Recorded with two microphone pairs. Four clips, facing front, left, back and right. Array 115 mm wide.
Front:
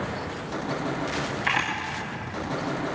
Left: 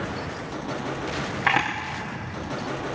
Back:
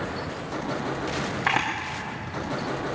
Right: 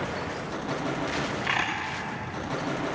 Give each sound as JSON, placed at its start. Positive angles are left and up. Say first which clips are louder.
{"t": 1.5, "sound": "a camera shutter", "louder": "left 9 dB, back 3 dB", "azimuth_deg": 130, "distance_m": 6.5}